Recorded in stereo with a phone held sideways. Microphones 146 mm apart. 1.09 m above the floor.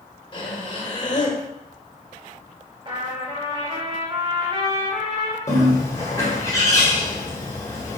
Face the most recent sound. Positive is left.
turn(degrees=20)  # may be behind; listen again after turning